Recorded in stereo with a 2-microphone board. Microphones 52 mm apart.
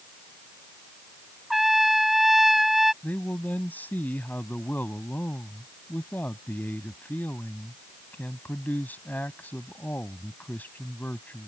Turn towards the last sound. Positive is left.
turn(degrees=35)  # may be behind; listen again after turning